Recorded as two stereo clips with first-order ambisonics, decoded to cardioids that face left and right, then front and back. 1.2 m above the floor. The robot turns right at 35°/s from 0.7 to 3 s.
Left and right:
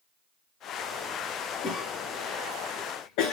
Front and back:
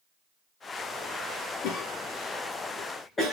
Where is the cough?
30° left, 1.4 m; by 3.3 s 75° left, 1.4 m.